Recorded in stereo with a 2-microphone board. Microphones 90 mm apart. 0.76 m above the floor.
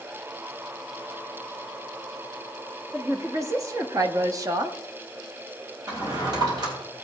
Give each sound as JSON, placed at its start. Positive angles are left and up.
{"t": 2.9, "sound": "a woman speaking", "side_deg": -30, "distance_m": 1.5}
{"t": 5.9, "sound": "a drawer", "side_deg": -50, "distance_m": 3.0}